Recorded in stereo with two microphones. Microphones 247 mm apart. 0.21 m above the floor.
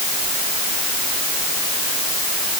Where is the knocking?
I don't hear knocking.